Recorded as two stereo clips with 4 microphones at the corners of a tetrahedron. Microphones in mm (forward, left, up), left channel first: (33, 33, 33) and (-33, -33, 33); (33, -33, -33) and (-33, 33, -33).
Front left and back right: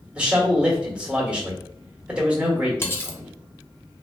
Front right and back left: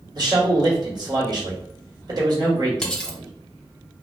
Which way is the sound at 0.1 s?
150° left.